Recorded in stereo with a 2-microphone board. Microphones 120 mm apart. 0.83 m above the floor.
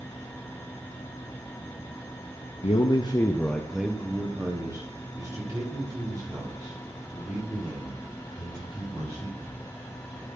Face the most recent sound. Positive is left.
turn(degrees=-40)  # may be behind; listen again after turning